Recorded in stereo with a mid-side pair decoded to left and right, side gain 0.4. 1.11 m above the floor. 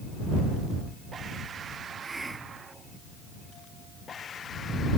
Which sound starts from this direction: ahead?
A hiss, at 2.0 s.